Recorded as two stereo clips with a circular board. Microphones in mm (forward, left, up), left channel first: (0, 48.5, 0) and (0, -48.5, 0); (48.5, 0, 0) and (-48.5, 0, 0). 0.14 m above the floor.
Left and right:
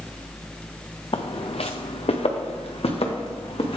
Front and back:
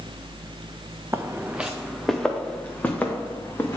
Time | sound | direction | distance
1.1 | footsteps | 120° left | 0.6 m